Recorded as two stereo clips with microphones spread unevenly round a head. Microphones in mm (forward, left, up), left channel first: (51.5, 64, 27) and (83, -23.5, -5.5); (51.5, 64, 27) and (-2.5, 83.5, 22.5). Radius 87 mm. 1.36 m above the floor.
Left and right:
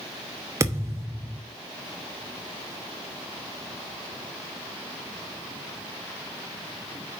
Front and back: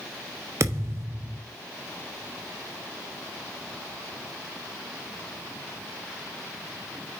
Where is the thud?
155° right, 0.8 m.